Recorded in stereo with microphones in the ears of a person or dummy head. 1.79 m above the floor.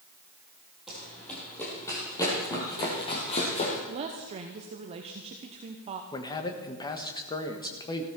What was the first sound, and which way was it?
Running footsteps, centre (ahead or behind).